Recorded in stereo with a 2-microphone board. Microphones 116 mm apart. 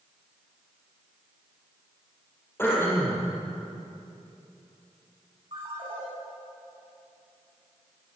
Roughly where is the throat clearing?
Left.